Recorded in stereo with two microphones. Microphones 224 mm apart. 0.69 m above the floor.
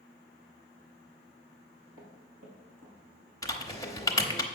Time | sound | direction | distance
1.7 | footsteps | 80° right | 4 m
3.4 | typing on a keyboard | 15° left (ahead or behind) | 0.9 m